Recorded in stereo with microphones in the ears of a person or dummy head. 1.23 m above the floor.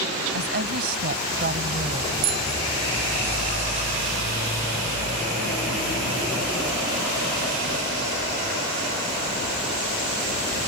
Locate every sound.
0.3 s a woman speaking: 55° right (ahead or behind); by 2.1 s 50° right (ahead or behind)
2.2 s a bicycle bell: 60° right (ahead or behind)